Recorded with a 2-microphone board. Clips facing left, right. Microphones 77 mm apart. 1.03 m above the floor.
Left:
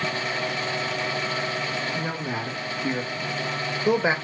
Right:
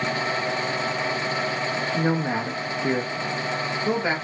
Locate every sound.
1.9 s a man speaking: 40° right (ahead or behind), 1.2 m; by 4.2 s 25° left (ahead or behind), 0.9 m